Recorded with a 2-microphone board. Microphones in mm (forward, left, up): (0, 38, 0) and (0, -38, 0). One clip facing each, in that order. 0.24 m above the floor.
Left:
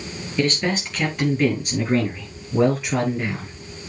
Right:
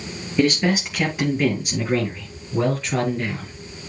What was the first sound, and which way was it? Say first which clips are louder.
A man speaking: right 3 dB; 10° right (ahead or behind).